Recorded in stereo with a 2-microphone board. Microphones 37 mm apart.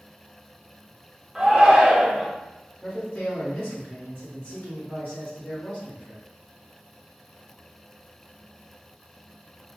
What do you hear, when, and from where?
1.4 s a shout: 10° right (ahead or behind), 0.9 m
2.8 s a man speaking: 45° left (ahead or behind), 1.3 m